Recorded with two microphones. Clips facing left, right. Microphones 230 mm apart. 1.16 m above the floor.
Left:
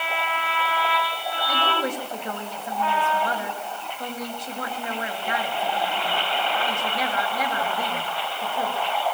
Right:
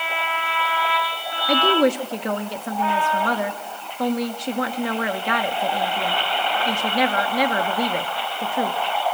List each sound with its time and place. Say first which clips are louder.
1.5 s a woman speaking: right 11 dB; 75° right (ahead or behind), 1.7 m